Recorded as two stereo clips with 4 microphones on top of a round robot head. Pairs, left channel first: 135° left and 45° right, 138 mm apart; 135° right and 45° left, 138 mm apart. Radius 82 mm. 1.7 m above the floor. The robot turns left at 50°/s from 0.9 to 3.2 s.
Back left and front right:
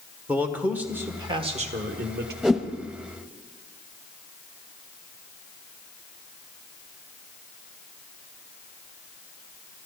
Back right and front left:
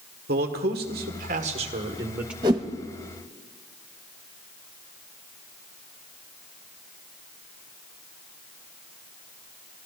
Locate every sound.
0.3 s a man speaking: 35° left, 1.5 m; by 2.3 s 40° right, 1.5 m
2.4 s a whoosh: 35° left, 1.0 m; by 2.7 s 20° left, 1.0 m